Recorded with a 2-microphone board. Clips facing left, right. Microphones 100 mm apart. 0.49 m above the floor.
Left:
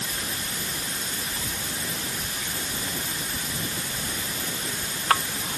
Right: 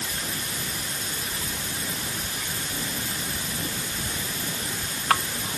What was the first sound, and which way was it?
Only background noise.